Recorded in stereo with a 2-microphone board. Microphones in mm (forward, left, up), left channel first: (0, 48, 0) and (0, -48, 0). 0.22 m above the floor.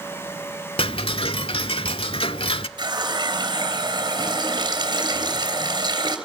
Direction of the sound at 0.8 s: 70° left (ahead or behind).